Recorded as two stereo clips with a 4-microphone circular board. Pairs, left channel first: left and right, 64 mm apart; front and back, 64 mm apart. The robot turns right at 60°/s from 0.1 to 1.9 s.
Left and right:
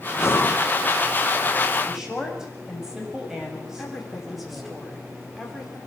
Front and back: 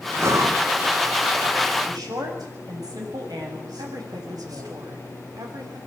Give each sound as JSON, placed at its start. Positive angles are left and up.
{"t": 0.2, "sound": "breathing", "azimuth_deg": 135, "distance_m": 1.6}
{"t": 1.9, "sound": "a woman speaking", "azimuth_deg": -175, "distance_m": 7.5}
{"t": 3.8, "sound": "a woman speaking", "azimuth_deg": 180, "distance_m": 6.0}